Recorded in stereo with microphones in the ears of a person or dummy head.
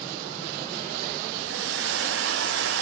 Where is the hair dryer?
70° right (ahead or behind), 0.6 m.